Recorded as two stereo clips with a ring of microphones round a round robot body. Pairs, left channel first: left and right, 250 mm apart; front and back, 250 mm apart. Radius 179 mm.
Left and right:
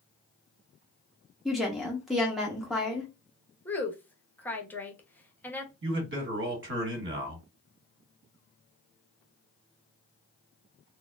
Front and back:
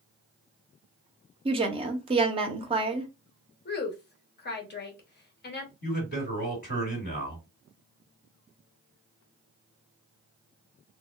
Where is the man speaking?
55° right, 1.6 m.